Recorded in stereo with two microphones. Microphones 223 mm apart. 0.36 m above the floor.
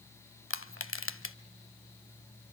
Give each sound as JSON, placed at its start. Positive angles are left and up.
{"t": 0.5, "sound": "crushing", "side_deg": 70, "distance_m": 0.8}